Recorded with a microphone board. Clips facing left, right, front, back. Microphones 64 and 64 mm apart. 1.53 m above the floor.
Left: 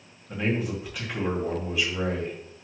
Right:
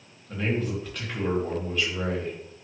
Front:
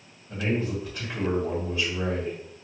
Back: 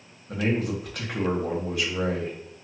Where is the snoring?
No snoring in this recording.